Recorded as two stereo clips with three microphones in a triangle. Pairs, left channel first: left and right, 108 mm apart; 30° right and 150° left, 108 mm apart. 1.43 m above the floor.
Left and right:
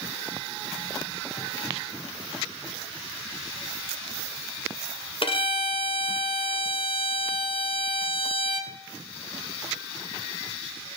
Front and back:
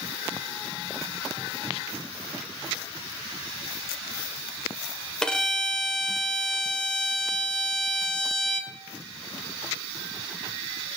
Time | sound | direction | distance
5.2 | a violin | 55° left | 0.7 m